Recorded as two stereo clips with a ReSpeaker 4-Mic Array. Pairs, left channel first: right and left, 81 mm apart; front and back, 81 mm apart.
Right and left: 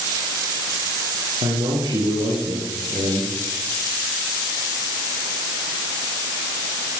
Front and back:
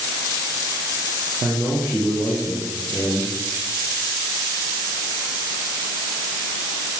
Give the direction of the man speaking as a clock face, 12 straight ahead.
9 o'clock.